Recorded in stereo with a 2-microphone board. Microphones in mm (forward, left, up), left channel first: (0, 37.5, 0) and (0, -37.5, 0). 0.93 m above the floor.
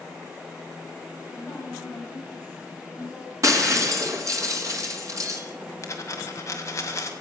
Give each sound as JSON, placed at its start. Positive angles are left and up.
{"t": 1.3, "sound": "a woman speaking", "side_deg": 20, "distance_m": 5.0}
{"t": 3.4, "sound": "breaking glass", "side_deg": -45, "distance_m": 2.5}
{"t": 5.8, "sound": "a dropped coin", "side_deg": 40, "distance_m": 1.8}